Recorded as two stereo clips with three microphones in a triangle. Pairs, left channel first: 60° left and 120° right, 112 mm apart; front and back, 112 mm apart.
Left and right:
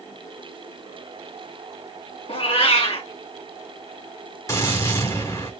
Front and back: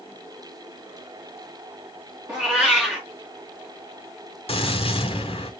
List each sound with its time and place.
2.3 s a cat meowing: 95° left, 3.5 m
4.5 s a gunshot: 5° left, 2.5 m